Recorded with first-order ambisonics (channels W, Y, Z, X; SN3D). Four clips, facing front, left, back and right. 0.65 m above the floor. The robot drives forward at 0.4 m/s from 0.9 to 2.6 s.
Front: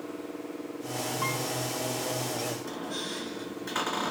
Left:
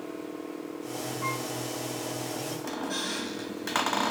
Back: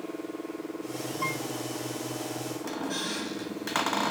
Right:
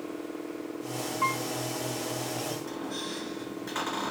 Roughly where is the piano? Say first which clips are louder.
Right 5 dB, back 1 dB; right.